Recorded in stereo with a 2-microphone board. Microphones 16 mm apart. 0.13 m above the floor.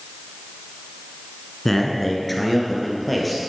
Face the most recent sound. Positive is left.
turn(degrees=5)  # may be behind; listen again after turning